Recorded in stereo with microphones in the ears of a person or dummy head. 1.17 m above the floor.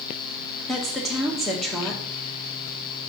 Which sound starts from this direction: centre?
A woman speaking, at 0.7 s.